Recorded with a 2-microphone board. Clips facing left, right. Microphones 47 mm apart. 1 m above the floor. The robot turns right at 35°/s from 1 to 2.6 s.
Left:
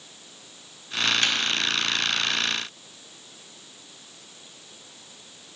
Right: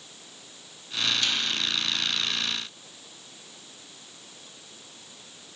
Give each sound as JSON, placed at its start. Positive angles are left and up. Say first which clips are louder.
{"t": 1.2, "sound": "a snare drum", "louder": "left 3 dB", "side_deg": 50, "distance_m": 0.7}